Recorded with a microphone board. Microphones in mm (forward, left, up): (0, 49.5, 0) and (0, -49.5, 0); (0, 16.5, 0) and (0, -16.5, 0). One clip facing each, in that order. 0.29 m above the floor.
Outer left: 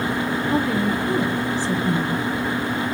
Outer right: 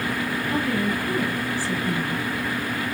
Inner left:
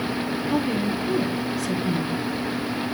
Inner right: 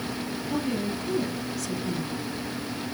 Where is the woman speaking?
20° left (ahead or behind), 2 m.